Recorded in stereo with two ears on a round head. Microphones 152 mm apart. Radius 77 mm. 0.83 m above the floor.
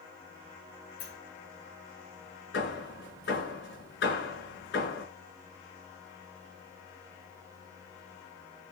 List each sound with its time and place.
1.0 s a sliding door: 75° left (ahead or behind), 7 m
2.5 s hammering: 70° left (ahead or behind), 8.5 m